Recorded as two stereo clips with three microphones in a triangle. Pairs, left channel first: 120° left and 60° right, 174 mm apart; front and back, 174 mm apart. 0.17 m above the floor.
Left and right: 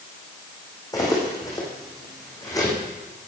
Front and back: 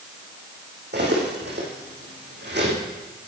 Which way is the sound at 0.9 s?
170° right.